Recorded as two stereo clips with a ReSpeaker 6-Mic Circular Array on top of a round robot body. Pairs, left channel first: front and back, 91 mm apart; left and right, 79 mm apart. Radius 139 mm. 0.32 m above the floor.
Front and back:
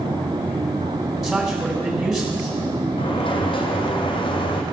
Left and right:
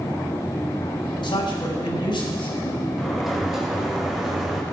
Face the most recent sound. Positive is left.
turn(degrees=-5)